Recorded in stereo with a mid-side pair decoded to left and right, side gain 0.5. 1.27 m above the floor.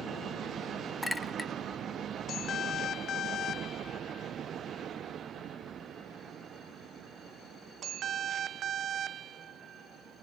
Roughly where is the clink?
Ahead.